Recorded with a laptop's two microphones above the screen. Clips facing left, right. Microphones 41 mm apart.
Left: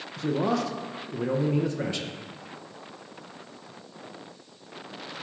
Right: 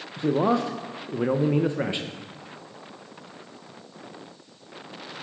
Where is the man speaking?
25° right (ahead or behind), 0.6 m.